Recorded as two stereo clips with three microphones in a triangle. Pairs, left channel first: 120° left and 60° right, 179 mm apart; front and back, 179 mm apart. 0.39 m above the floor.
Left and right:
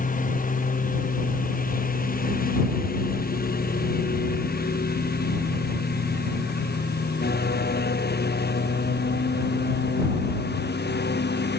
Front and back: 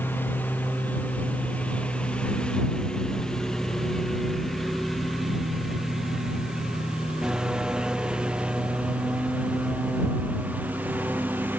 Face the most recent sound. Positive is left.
turn(degrees=100)